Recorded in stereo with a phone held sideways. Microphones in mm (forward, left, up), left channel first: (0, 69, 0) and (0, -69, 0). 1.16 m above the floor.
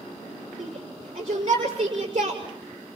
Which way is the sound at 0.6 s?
40° right (ahead or behind).